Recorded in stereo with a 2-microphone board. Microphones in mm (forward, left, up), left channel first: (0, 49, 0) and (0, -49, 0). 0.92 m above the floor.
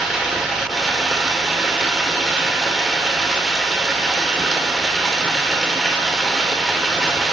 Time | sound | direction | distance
0.0 | running water | 5° right (ahead or behind) | 1.3 m